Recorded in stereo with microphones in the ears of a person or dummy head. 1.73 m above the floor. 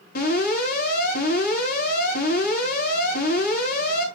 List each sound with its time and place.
0.1 s an alarm: 55° left (ahead or behind), 7.5 m